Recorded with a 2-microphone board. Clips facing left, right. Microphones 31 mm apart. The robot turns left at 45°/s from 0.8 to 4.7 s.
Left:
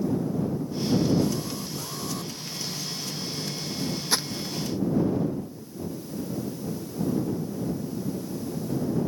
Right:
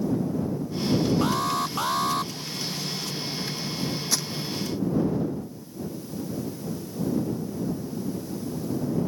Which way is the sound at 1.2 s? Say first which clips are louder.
Right 5 dB; 85° right.